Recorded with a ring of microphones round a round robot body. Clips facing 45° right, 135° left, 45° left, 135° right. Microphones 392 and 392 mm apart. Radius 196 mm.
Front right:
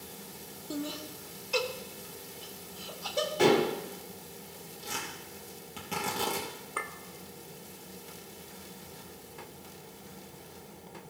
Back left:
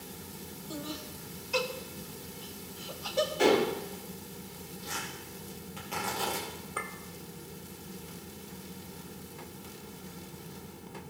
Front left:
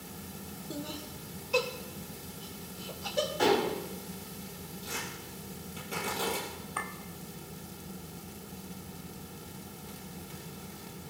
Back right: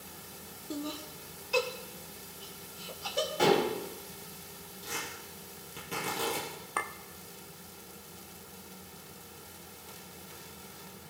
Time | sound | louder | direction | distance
0.7 | laughter | front right 4 dB, back right 3 dB | 55° right | 0.9 m
3.4 | dishes clattering | front right 1 dB, back right 1 dB | 85° right | 2 m
4.8 | tearing paper | front right 2 dB, back right 1 dB | 50° right | 4 m
6.8 | a clink | even, back right 5 dB | 130° right | 0.7 m